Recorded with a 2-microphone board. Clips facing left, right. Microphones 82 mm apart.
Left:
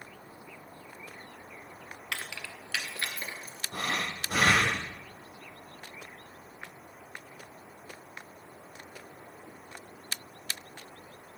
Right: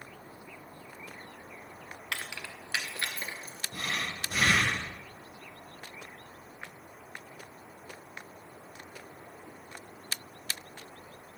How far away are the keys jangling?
About 1.1 m.